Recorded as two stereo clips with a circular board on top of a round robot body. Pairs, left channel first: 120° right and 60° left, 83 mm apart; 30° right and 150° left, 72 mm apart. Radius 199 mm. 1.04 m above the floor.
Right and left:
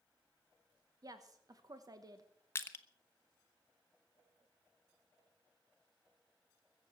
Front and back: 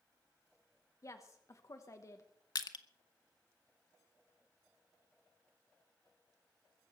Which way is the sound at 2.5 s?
60° right.